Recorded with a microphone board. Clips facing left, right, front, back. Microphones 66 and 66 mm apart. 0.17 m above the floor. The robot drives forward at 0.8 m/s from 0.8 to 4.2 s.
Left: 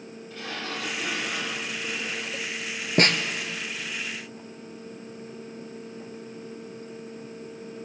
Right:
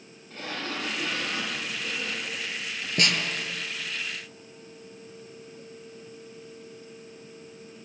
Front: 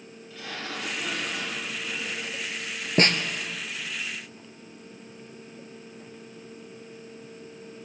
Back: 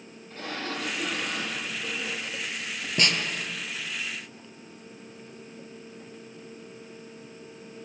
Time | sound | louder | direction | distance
0.3 | a sliding door | right 1 dB, back 2 dB | 135° right | 4.5 m
3.0 | a snare drum | left 5 dB, front 4 dB | 45° left | 0.9 m